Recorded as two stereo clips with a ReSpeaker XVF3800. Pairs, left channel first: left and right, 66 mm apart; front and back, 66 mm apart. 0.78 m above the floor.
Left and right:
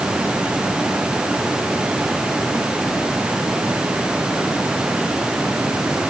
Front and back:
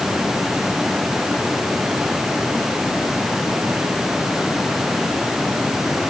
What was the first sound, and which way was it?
Only background noise.